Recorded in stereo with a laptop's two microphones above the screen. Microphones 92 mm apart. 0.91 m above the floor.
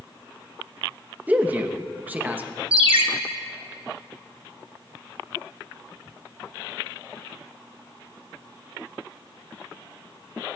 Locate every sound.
1.3 s a man speaking: 20° right (ahead or behind), 0.8 m
2.7 s a ringtone: 80° right, 1.2 m